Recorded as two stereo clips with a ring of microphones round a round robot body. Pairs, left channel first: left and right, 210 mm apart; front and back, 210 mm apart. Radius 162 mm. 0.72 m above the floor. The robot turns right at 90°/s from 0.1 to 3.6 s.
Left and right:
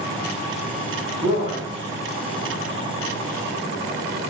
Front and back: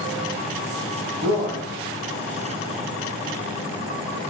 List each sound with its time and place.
1.2 s a man speaking: 175° right, 1.2 m; by 1.7 s 135° right, 1.2 m